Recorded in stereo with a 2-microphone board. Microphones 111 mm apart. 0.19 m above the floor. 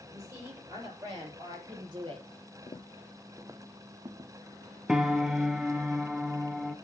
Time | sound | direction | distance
0.1 | a woman speaking | 30° right (ahead or behind) | 6 m
2.7 | footsteps | 50° left (ahead or behind) | 0.6 m
4.9 | a piano | 5° right (ahead or behind) | 0.6 m